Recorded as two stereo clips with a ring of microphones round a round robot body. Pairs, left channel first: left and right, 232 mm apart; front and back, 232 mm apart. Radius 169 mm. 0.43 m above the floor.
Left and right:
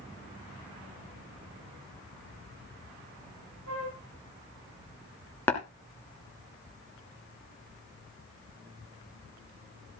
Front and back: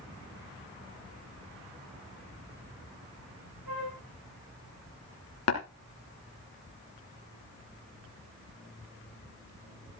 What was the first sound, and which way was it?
A flute, 135° right.